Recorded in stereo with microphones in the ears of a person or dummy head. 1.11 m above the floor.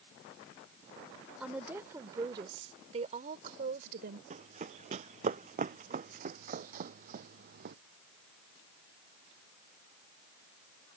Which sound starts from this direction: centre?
A woman speaking, at 1.4 s.